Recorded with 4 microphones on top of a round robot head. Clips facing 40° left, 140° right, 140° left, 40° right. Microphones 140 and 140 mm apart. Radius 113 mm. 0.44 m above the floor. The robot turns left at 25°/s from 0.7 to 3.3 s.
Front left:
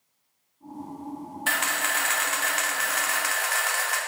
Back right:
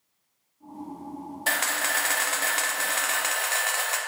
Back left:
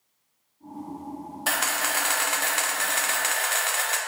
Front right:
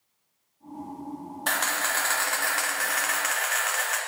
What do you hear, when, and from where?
1.5 s a camera shutter: 140° right, 1.1 m; by 4.0 s 175° left, 1.1 m